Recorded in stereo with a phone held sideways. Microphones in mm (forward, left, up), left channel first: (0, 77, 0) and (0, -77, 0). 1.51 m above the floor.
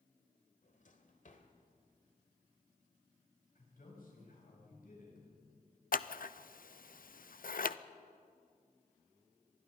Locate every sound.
0.6 s a drawer: 55° left (ahead or behind), 1.9 m
3.5 s a man speaking: 65° left (ahead or behind), 7.5 m
5.9 s scissors: 65° left (ahead or behind), 0.5 m